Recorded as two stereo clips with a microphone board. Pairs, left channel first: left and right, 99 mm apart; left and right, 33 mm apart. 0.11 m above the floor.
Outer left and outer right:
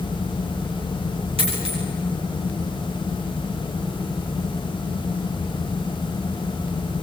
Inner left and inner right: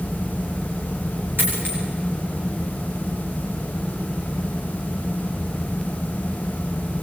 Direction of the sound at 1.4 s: 75° right (ahead or behind).